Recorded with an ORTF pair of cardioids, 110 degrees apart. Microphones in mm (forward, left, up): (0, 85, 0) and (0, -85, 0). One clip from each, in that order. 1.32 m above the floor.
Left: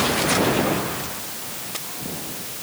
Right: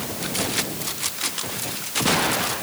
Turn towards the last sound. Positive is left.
No sound to turn to.